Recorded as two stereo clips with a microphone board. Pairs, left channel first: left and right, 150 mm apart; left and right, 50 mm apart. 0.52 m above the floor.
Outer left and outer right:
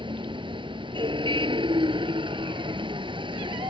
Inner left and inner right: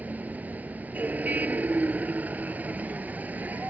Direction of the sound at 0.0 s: 35° right (ahead or behind).